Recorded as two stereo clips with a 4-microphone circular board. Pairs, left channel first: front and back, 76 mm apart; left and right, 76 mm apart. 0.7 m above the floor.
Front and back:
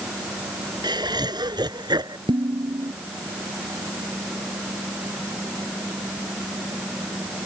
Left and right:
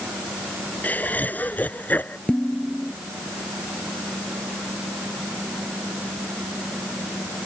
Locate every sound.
0.8 s laughter: 160° left
2.3 s dishes clattering: 170° left